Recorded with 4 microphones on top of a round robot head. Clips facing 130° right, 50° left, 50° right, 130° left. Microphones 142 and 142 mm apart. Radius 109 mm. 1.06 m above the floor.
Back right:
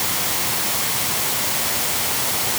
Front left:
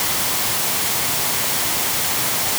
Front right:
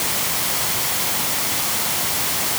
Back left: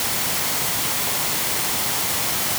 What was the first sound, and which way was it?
Only background noise.